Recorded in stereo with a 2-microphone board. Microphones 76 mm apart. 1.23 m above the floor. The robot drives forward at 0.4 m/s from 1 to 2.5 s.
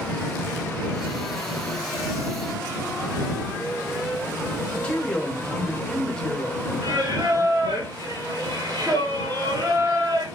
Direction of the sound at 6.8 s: 70° right (ahead or behind).